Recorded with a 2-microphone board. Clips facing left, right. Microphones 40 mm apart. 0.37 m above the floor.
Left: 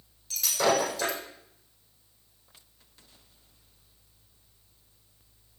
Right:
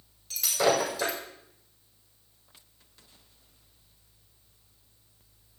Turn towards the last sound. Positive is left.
turn(degrees=0)  # may be behind; listen again after turning